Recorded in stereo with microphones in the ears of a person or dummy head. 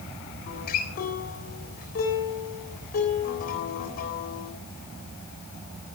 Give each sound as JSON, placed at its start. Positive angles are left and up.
{"t": 0.5, "sound": "a guitar", "side_deg": 50, "distance_m": 3.5}